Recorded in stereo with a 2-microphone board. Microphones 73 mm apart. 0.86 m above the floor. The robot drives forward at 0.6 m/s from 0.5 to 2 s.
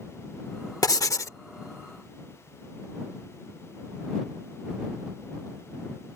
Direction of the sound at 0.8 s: 55° left (ahead or behind).